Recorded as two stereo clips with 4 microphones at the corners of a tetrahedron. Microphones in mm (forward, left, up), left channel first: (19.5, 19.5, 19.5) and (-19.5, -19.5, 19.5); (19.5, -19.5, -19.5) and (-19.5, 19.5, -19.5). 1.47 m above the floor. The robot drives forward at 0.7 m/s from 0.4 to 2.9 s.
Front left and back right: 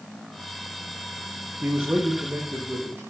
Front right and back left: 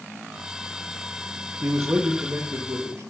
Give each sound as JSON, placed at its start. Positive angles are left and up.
{"t": 1.6, "sound": "a man speaking", "azimuth_deg": 175, "distance_m": 1.0}